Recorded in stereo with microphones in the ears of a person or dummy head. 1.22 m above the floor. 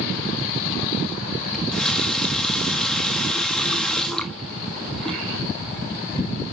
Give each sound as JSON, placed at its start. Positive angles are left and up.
{"t": 1.5, "sound": "a running tap", "side_deg": 5, "distance_m": 1.2}